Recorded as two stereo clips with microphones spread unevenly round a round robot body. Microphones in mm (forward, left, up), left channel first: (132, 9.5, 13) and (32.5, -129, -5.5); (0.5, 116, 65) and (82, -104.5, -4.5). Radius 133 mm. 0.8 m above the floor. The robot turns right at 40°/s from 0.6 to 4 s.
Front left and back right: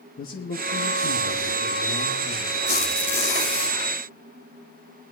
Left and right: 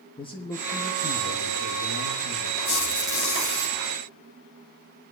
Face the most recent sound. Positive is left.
turn(degrees=-125)